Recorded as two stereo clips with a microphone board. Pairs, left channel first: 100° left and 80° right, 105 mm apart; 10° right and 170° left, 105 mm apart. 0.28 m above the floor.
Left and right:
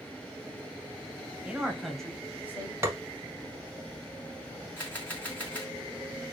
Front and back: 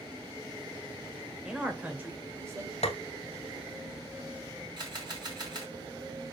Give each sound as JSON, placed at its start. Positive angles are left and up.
{"t": 1.4, "sound": "a man speaking", "azimuth_deg": -120, "distance_m": 0.9}
{"t": 2.8, "sound": "tapping", "azimuth_deg": -15, "distance_m": 0.7}
{"t": 4.8, "sound": "a camera shutter", "azimuth_deg": 165, "distance_m": 2.0}